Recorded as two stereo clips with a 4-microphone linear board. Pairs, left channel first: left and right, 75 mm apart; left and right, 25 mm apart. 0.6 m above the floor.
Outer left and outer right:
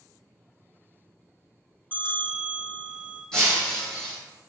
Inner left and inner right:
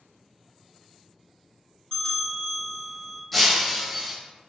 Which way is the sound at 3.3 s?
10° left (ahead or behind).